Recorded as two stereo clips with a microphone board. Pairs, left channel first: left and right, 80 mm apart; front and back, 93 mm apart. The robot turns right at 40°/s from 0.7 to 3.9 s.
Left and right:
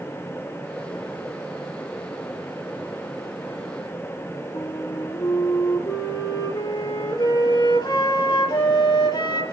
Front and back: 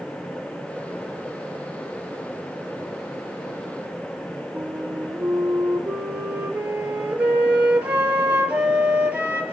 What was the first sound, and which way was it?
A flute, 105° left.